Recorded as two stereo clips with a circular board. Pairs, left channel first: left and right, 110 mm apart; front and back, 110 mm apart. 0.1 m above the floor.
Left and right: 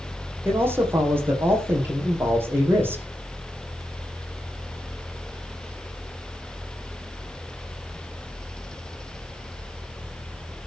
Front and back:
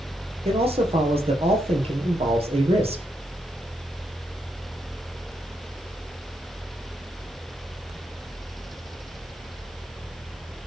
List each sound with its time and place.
0.5 s a man speaking: 160° right, 5 m